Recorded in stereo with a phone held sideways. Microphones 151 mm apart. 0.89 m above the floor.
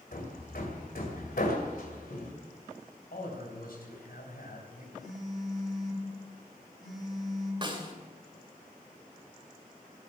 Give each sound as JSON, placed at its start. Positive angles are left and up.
{"t": 0.1, "sound": "hammering", "side_deg": 75, "distance_m": 2.5}
{"t": 3.1, "sound": "a man speaking", "side_deg": 80, "distance_m": 4.0}
{"t": 5.0, "sound": "a phone buzzing", "side_deg": -5, "distance_m": 7.5}
{"t": 7.6, "sound": "a snare drum", "side_deg": -30, "distance_m": 2.5}